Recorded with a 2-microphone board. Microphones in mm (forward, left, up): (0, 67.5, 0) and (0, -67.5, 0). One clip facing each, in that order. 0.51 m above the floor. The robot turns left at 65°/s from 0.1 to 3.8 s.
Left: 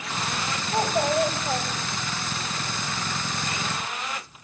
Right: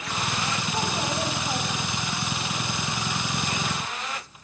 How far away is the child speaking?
About 1.7 m.